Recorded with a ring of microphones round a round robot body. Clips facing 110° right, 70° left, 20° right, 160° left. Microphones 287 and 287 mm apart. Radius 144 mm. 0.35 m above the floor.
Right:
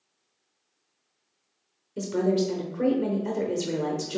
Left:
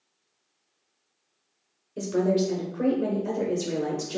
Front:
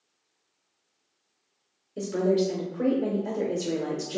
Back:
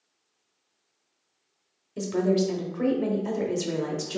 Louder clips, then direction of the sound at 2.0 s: Even, even; 175° right.